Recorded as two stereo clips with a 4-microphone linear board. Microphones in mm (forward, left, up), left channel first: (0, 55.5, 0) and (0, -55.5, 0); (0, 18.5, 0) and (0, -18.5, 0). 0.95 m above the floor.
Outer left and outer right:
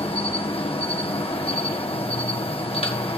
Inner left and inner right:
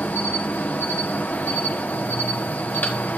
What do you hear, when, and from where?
0.0 s an insect: 55° left (ahead or behind), 1.0 m